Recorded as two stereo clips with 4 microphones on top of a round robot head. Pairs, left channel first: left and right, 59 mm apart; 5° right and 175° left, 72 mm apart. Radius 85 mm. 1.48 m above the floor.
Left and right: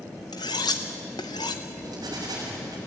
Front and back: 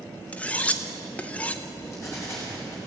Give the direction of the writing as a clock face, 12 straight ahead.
2 o'clock.